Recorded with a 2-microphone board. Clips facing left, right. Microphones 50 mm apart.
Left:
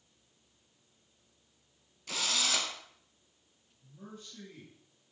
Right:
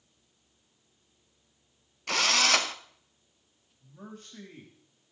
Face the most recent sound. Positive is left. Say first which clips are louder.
# right 3 dB
turn(degrees=-60)  # may be behind; listen again after turning